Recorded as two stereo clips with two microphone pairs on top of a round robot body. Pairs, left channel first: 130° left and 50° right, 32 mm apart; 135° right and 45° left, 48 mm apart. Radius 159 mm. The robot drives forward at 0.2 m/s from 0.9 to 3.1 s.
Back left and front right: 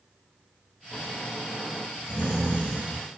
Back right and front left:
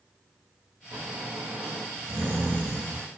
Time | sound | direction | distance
0.9 | snoring | 75° left | 0.8 m